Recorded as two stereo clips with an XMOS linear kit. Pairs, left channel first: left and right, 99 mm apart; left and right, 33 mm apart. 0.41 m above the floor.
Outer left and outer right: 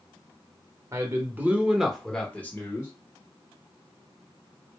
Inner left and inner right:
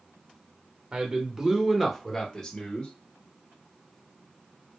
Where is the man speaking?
30° right (ahead or behind), 0.9 m; by 2.9 s 30° left (ahead or behind), 0.9 m.